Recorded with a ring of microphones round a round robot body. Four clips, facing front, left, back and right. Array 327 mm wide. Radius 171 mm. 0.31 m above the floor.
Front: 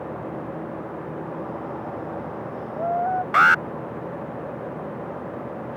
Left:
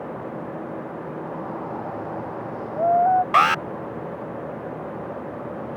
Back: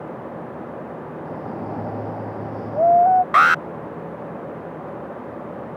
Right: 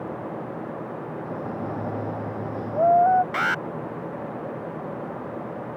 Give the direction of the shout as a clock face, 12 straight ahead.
5 o'clock.